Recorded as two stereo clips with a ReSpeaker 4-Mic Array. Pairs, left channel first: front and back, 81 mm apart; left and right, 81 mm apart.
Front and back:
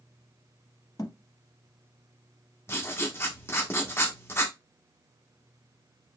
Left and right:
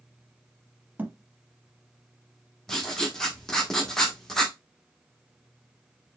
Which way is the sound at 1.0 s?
25° right.